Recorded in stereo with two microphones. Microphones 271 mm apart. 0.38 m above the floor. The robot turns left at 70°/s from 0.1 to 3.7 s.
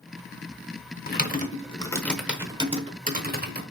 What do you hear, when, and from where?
1.1 s typing on a keyboard: 35° left (ahead or behind), 0.8 m; by 3.6 s 35° right (ahead or behind), 0.8 m